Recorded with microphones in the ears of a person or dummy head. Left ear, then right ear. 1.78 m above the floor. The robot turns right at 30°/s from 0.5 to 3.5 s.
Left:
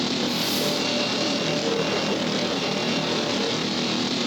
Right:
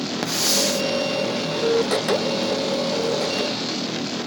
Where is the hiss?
75° right (ahead or behind), 0.7 m; by 0.8 s 80° right, 0.7 m.